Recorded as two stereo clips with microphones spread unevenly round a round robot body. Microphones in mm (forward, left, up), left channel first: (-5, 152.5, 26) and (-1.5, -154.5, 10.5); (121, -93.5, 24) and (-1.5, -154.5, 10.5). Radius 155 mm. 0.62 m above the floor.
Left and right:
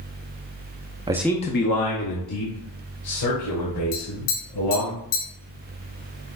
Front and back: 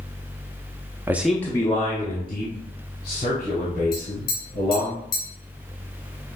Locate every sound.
1.1 s a man speaking: 130° right, 0.6 m; by 4.9 s 70° left, 3.5 m
3.9 s tapping: 65° left, 2.0 m